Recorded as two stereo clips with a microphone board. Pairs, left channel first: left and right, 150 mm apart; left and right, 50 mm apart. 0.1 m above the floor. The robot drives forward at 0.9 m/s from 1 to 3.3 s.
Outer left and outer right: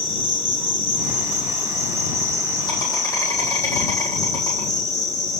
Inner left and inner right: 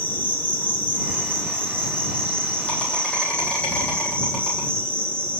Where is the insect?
40° left (ahead or behind), 3 m; by 5.4 s 25° left (ahead or behind), 4.5 m.